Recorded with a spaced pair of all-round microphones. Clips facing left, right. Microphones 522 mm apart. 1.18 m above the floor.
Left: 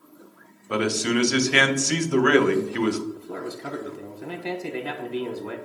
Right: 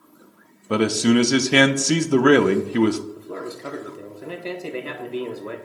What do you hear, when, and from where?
0.7 s a man speaking: 60° right (ahead or behind), 0.6 m
3.2 s a man speaking: 10° left (ahead or behind), 0.8 m